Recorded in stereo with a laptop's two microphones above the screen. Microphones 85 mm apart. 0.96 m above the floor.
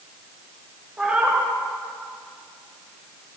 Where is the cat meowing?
10° right (ahead or behind), 0.7 m.